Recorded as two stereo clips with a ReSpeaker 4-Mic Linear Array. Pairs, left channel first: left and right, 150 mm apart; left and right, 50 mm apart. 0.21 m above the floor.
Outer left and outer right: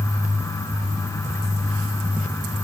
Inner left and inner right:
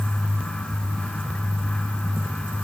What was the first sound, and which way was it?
Only background noise.